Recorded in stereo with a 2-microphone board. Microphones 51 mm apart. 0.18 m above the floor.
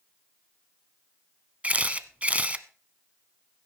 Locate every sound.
1.6 s a camera shutter: 25° right (ahead or behind), 0.8 m